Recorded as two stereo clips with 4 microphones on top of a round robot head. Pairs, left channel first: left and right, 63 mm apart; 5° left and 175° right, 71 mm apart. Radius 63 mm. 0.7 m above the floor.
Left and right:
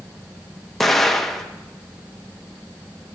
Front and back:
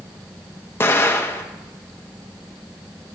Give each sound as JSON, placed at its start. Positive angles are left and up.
{"t": 0.8, "sound": "an explosion", "azimuth_deg": 5, "distance_m": 1.2}